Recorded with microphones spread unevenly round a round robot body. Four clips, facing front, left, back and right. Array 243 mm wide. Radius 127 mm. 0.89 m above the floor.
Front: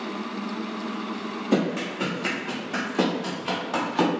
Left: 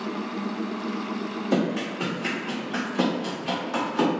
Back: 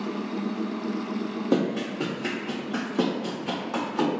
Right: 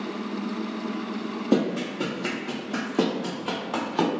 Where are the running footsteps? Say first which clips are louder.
Right 2 dB, front 1 dB; 140° right, 1.4 m; by 4.1 s 45° right, 1.3 m.